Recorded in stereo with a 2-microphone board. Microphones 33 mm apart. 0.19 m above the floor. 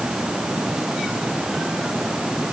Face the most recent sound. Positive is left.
No sound to turn to.